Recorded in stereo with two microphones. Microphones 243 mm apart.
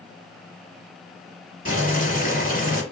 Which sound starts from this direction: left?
Boiling, at 1.6 s.